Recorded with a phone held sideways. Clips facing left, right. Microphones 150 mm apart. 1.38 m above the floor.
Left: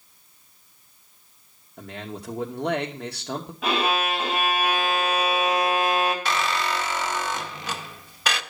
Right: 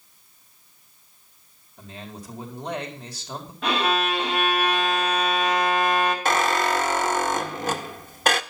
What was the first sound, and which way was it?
A man speaking, 65° left (ahead or behind).